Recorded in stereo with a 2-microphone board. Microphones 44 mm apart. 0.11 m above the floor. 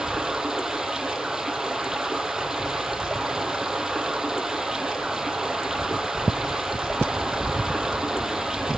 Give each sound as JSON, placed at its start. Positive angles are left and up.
{"t": 0.0, "sound": "running water", "side_deg": -15, "distance_m": 3.0}